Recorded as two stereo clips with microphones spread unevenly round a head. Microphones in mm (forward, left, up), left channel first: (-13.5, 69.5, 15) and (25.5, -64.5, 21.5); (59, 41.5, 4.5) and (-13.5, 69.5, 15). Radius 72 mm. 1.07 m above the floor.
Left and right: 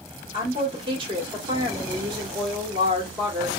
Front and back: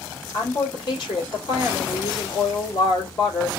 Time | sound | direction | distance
0.3 | a woman speaking | 20° right | 1.6 m